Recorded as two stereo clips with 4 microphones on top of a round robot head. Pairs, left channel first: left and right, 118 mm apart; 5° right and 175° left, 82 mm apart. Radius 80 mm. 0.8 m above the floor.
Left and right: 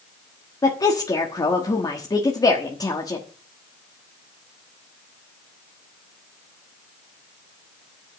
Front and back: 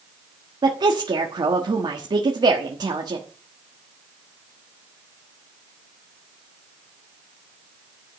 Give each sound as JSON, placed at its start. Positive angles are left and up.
{"t": 0.6, "sound": "a woman speaking", "azimuth_deg": 145, "distance_m": 1.4}